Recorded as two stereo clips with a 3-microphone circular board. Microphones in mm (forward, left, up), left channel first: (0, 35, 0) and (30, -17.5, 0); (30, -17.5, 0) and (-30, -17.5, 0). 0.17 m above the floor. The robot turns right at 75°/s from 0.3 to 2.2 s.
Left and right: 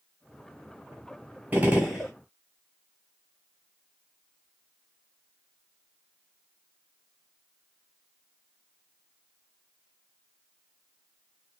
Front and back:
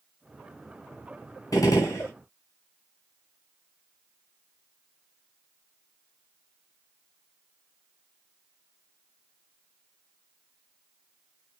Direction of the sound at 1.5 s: Straight ahead.